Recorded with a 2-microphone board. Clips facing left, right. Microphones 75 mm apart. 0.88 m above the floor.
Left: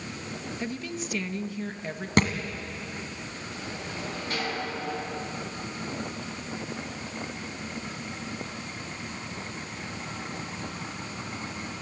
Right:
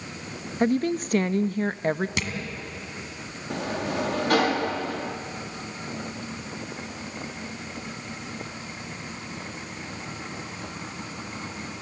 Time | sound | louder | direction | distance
0.6 | a woman speaking | right 14 dB | 45° right (ahead or behind) | 0.5 m
2.2 | a thud | left 8 dB | 40° left (ahead or behind) | 2 m
3.5 | a sliding door | right 12 dB | 70° right (ahead or behind) | 1.4 m